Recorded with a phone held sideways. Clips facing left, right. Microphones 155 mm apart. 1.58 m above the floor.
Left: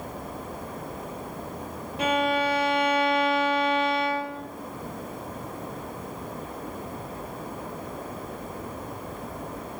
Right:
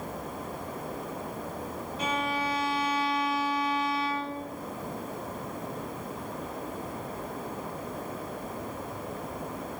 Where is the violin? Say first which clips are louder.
Left 7 dB; 60° left (ahead or behind), 2 m.